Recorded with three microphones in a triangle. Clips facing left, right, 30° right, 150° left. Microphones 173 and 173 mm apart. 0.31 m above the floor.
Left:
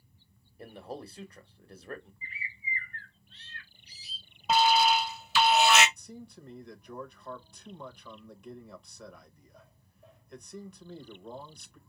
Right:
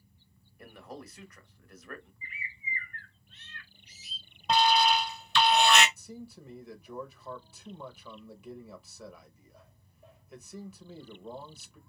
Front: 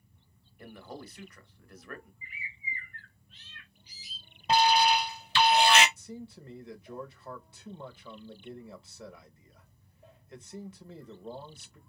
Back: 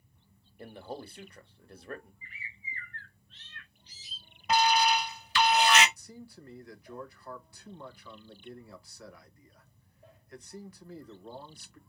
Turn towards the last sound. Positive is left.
turn(degrees=-10)